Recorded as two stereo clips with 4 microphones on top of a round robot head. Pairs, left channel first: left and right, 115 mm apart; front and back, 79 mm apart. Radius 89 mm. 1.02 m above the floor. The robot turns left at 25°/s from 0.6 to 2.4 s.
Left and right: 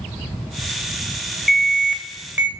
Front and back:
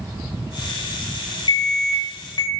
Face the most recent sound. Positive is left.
turn(degrees=-20)